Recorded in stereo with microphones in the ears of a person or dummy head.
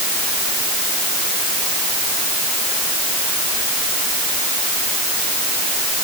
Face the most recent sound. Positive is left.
No sound to turn to.